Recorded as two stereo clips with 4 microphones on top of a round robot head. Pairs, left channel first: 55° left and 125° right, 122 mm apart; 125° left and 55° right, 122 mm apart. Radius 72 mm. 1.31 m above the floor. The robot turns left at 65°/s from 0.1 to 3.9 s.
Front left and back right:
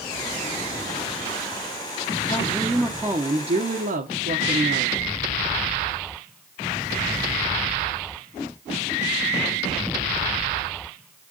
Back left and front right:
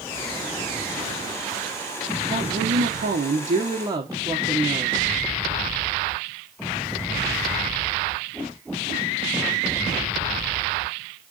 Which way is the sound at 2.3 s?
10° right.